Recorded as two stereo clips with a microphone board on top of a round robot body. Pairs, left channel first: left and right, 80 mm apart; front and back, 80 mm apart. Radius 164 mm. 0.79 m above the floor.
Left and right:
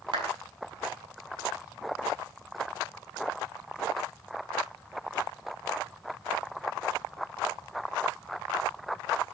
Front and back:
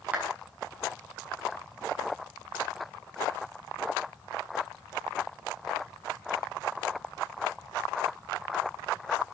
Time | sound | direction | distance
0.1 | a clap | 110° right | 6.5 m